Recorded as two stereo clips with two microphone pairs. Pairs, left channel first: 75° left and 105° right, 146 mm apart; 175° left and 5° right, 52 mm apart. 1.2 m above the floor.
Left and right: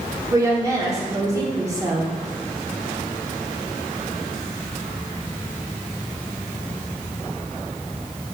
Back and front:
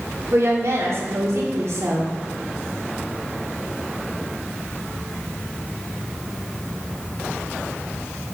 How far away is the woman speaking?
About 1.4 m.